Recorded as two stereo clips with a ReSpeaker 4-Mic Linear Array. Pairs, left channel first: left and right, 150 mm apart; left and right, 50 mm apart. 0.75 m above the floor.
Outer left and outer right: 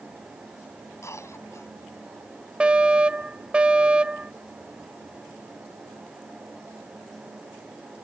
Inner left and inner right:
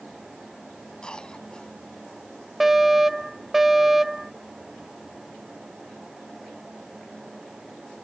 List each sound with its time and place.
1.0 s a cough: 20° left (ahead or behind)
2.6 s a fire alarm: 5° right (ahead or behind)